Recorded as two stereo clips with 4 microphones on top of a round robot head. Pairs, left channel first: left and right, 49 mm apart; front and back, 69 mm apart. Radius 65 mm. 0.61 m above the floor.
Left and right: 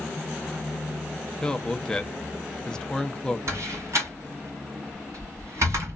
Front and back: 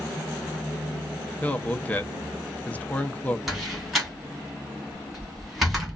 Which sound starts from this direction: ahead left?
A man speaking, at 1.4 s.